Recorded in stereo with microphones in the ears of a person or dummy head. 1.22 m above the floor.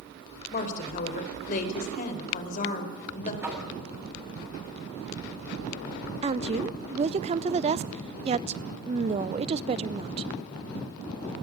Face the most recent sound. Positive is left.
turn(degrees=-30)  # may be behind; listen again after turning